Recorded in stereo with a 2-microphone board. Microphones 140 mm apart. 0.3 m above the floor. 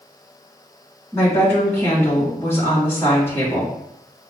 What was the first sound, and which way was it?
A woman speaking, 15° left (ahead or behind).